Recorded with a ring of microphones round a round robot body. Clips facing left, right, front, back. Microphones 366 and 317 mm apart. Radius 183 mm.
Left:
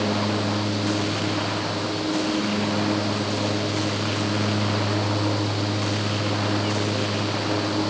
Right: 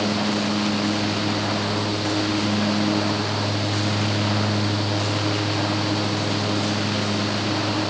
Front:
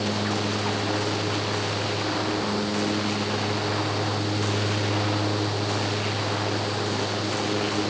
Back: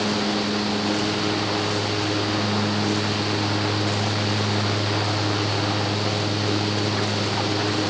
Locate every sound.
Only background noise.